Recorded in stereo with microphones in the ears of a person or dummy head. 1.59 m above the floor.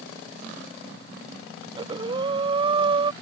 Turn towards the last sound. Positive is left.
turn(degrees=-30)  # may be behind; listen again after turning